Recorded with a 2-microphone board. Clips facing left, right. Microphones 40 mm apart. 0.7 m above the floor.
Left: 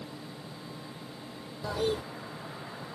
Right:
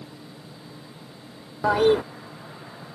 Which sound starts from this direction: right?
A toilet flushing, at 1.6 s.